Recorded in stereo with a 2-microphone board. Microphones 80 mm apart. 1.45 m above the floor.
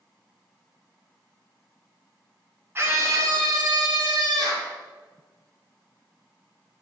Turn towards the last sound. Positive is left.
turn(degrees=-60)  # may be behind; listen again after turning